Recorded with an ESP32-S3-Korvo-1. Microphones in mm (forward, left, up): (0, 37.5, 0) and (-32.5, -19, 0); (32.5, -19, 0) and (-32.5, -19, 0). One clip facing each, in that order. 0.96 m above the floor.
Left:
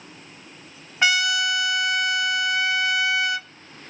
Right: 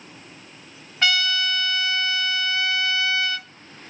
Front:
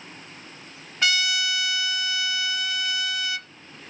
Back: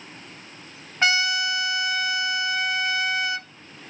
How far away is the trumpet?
About 0.6 m.